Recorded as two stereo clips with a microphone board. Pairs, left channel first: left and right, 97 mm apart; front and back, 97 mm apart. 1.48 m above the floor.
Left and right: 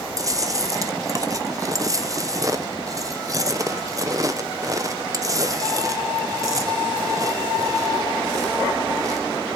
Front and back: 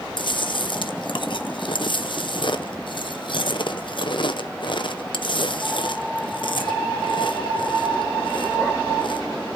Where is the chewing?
35° right, 0.8 m.